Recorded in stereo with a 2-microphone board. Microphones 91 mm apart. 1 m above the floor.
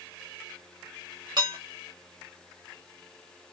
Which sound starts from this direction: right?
Dishes clattering, at 1.4 s.